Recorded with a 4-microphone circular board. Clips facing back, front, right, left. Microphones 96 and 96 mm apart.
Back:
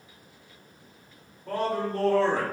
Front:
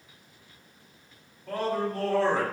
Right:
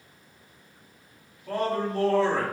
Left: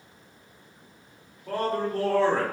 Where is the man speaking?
130° left, 1.6 m.